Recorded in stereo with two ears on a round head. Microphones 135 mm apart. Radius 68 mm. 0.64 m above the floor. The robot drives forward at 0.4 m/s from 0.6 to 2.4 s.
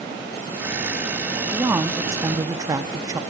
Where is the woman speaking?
15° right (ahead or behind), 0.7 m; by 3.2 s 20° right (ahead or behind), 0.5 m.